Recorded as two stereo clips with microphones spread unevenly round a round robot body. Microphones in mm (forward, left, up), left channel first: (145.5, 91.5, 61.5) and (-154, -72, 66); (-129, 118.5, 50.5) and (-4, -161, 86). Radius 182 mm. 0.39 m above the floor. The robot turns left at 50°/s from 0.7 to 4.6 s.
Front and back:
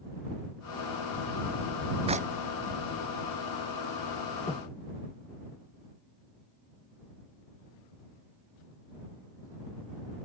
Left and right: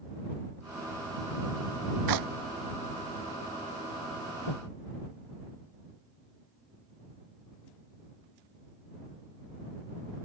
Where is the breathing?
105° left; by 4.7 s 100° left.